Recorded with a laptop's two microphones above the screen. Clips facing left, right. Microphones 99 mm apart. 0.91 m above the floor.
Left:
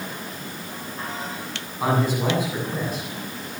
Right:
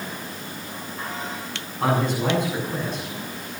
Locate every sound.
1.8 s a man speaking: 5° left (ahead or behind), 7.5 m